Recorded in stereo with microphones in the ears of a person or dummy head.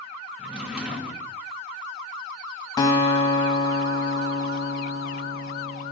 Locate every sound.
0.4 s a drawer: 5° right (ahead or behind), 1.0 m
2.8 s a guitar: 15° left (ahead or behind), 1.9 m